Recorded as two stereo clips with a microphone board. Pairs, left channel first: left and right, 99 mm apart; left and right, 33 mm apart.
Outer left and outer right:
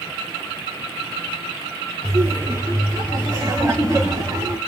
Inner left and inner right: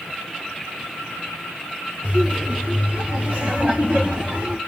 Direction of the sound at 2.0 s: 30° right (ahead or behind).